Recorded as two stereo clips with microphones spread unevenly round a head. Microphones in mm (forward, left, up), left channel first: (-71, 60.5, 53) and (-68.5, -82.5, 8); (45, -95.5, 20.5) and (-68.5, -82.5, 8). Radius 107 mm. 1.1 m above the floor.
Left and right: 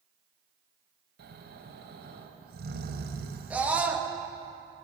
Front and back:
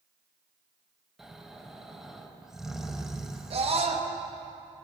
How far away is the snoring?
About 2.0 m.